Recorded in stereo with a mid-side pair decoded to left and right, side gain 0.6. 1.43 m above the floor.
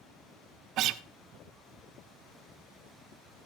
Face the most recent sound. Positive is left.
turn(degrees=-60)